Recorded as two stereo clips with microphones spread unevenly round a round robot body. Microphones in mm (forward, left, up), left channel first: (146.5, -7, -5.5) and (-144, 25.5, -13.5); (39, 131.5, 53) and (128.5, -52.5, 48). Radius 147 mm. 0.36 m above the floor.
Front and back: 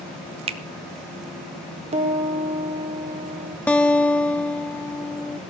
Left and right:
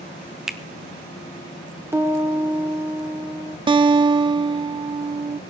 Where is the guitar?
90° right, 0.7 m.